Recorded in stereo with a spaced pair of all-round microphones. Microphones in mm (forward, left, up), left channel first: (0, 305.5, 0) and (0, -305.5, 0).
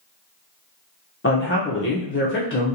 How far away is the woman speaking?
About 0.5 m.